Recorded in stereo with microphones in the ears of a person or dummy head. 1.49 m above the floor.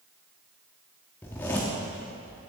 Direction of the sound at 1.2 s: 10° left (ahead or behind).